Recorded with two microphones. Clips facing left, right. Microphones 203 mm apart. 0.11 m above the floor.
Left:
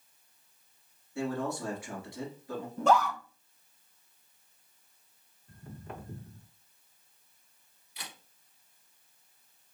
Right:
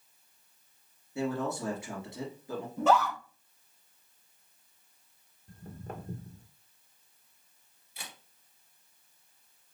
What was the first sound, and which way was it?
A man speaking, 20° right (ahead or behind).